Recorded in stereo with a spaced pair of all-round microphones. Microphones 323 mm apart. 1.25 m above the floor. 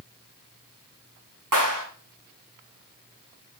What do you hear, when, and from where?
1.5 s a clap: 75° right (ahead or behind), 9.5 m